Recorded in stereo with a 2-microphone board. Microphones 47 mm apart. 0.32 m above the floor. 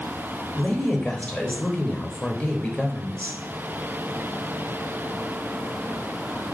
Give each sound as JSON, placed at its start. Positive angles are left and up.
{"t": 0.6, "sound": "a woman speaking", "side_deg": 25, "distance_m": 0.9}